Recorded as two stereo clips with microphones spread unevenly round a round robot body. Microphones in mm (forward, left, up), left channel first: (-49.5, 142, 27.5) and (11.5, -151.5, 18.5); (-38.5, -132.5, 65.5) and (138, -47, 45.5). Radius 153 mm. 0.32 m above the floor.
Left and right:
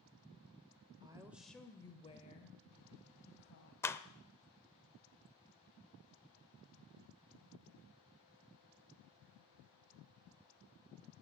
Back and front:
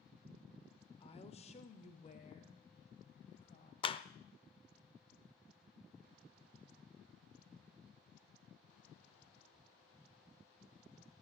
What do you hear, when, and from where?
1.0 s a woman speaking: 125° right, 1.1 m; by 3.7 s 145° left, 2 m
3.8 s a clap: 175° left, 0.6 m